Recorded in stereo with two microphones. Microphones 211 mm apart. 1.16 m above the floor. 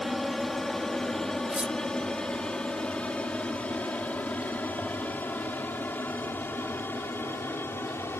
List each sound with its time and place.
0.0 s an aircraft: centre (ahead or behind); by 8.2 s 10° left (ahead or behind)
1.5 s cutlery clinking: 5° right (ahead or behind)